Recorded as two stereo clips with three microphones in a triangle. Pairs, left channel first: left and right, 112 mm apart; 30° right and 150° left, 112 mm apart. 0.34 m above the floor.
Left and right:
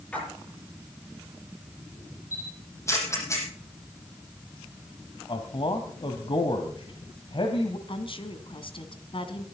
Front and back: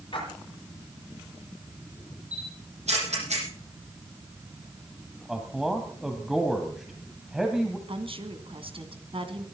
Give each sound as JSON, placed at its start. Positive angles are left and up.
{"t": 0.1, "sound": "a splash", "azimuth_deg": 10, "distance_m": 10.0}
{"t": 2.3, "sound": "a camera shutter", "azimuth_deg": 155, "distance_m": 7.0}
{"t": 5.3, "sound": "a man speaking", "azimuth_deg": 65, "distance_m": 2.0}
{"t": 7.9, "sound": "a woman speaking", "azimuth_deg": 120, "distance_m": 2.5}